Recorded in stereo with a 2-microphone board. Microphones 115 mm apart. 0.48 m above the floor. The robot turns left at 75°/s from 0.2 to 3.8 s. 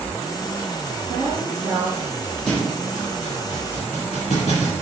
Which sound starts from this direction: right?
A woman speaking, at 1.1 s.